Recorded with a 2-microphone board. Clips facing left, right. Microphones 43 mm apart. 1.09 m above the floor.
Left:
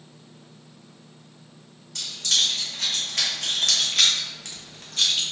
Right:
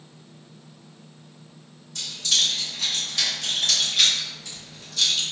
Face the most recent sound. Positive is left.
turn(degrees=30)  # may be behind; listen again after turning